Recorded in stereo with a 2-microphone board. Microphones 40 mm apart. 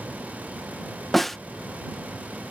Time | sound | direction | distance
1.1 | a snare drum | 5° left (ahead or behind) | ?